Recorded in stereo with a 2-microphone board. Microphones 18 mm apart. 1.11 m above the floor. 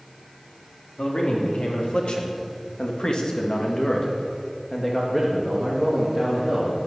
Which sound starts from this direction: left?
A man speaking, at 1.0 s.